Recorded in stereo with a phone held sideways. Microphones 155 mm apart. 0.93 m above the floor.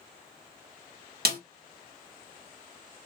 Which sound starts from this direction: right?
A snare drum, at 1.2 s.